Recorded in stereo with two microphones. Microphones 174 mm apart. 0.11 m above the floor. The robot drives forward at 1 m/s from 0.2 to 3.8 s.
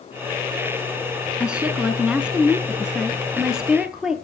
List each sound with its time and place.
1.4 s a woman speaking: 5° right (ahead or behind), 1.3 m